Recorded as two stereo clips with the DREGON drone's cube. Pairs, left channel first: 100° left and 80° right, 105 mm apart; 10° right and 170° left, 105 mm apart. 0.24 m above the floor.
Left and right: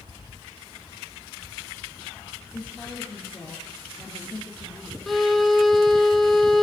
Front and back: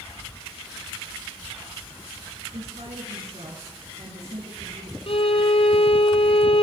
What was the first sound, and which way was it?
A woman speaking, 175° left.